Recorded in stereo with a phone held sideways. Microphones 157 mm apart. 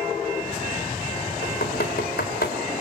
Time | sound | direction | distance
1.4 | knocking | 85° left | 3.5 m